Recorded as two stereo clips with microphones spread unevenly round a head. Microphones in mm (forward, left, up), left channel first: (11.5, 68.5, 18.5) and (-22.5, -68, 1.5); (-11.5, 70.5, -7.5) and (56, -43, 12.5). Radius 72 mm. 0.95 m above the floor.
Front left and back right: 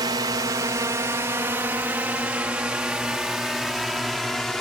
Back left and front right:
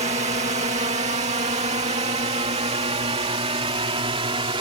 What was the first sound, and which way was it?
A drone, 65° right.